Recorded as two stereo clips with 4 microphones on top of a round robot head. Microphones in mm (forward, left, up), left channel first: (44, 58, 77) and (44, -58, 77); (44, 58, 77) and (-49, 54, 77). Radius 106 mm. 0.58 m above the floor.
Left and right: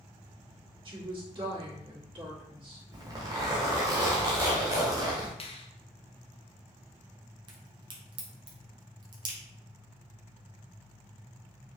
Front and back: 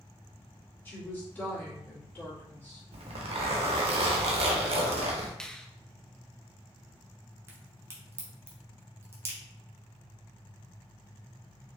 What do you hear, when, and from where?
0.8 s a woman speaking: 60° right, 1.9 m
2.9 s a zipper: 155° right, 0.6 m
5.4 s a finger snap: 85° left, 0.7 m
7.5 s a crack: 120° right, 1.0 m